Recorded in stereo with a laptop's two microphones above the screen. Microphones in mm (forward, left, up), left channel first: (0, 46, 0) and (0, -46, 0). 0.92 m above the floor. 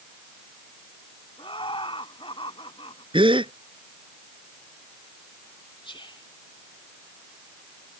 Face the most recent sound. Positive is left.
turn(degrees=70)  # may be behind; listen again after turning